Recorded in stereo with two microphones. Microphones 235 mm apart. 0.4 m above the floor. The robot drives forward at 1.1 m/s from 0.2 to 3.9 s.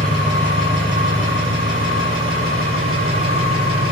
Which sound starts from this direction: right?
An engine running, at 0.0 s.